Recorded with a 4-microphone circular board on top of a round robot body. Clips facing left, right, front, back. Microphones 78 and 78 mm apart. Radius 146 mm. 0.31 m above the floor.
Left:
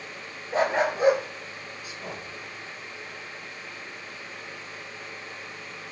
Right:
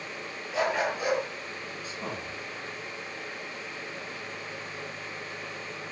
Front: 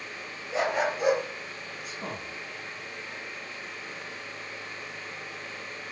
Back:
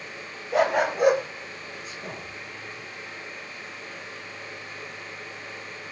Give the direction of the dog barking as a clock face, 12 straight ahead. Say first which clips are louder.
Left 4 dB, back 5 dB; 7 o'clock.